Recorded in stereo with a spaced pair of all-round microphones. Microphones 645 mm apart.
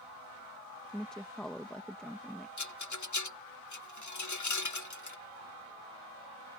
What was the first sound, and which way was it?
A woman speaking, centre (ahead or behind).